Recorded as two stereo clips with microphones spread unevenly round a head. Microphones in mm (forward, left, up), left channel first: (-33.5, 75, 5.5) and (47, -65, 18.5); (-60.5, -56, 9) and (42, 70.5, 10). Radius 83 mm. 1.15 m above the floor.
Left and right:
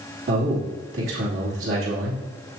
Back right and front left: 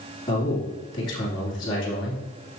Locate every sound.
0.3 s a man speaking: 65° right, 3 m